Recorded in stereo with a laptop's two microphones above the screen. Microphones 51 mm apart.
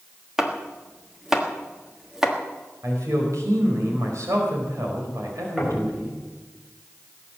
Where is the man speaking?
85° right, 4.5 m.